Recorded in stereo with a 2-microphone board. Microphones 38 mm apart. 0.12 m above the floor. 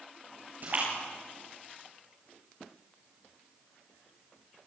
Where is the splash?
50° right (ahead or behind), 8.5 m.